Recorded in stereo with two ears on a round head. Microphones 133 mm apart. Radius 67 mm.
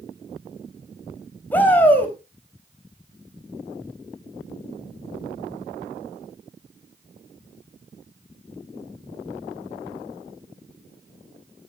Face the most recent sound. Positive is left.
turn(degrees=10)  # may be behind; listen again after turning